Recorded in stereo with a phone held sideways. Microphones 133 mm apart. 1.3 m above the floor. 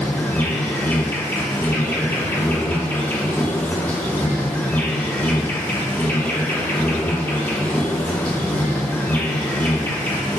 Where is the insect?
15° left (ahead or behind), 1.8 m.